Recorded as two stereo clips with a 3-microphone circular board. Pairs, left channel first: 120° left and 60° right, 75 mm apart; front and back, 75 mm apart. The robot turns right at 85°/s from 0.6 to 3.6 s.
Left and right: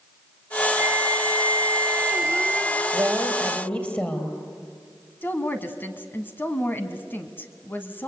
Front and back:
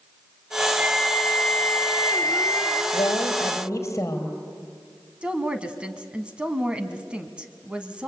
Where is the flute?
115° right, 2 m; by 2.8 s 60° left, 2 m.